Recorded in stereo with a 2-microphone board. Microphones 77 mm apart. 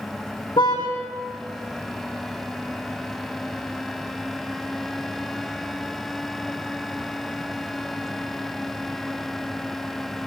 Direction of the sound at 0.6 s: 70° left (ahead or behind).